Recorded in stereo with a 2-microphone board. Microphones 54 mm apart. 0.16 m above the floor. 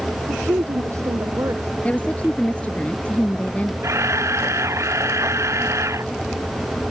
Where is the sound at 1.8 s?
25° left (ahead or behind).